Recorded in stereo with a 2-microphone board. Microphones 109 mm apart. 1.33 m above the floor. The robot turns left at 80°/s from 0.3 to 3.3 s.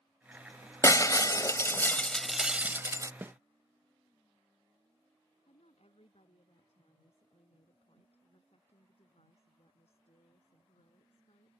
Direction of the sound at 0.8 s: 120° left.